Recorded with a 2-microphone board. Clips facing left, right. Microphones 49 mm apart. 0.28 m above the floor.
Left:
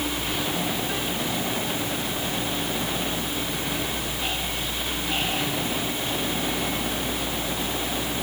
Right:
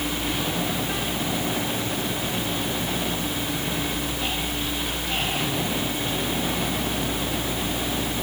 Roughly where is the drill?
No drill in this recording.